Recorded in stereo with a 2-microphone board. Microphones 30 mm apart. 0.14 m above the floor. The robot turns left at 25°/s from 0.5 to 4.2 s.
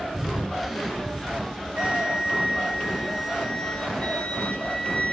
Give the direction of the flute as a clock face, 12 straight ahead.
5 o'clock.